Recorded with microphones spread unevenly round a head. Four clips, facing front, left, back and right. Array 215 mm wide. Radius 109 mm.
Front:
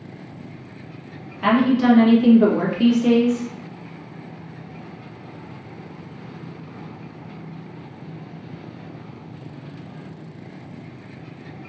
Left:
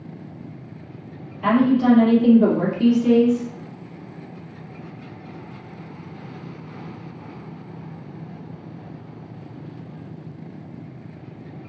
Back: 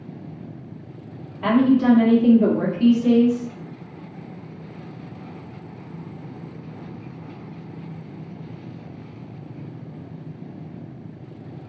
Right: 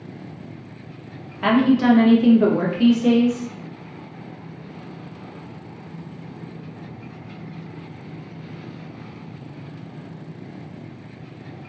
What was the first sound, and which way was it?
A woman speaking, 70° right.